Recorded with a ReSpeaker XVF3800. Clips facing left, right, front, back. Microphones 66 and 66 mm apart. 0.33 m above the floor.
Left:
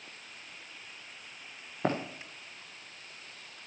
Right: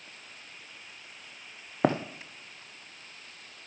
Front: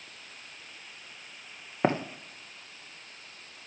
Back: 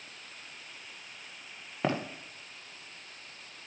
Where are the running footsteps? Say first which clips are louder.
Right 5 dB, front 4 dB; 65° right, 1.8 m.